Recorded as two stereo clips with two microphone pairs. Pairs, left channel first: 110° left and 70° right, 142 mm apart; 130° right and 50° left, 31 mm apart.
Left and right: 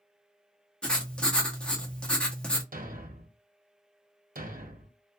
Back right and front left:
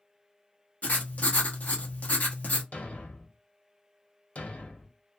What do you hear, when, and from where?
0.8 s writing: 165° right, 0.8 m
2.7 s a thud: 90° right, 0.7 m